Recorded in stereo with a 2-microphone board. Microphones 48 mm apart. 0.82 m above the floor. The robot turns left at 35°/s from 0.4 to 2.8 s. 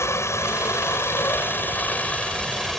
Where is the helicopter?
90° left; by 2.8 s 5° left.